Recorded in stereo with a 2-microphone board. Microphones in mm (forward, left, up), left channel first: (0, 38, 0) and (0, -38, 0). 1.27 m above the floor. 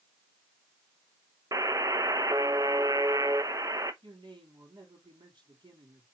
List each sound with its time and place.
1.5 s a buzzer: 45° right (ahead or behind), 0.8 m
4.0 s a man speaking: 75° right (ahead or behind), 4 m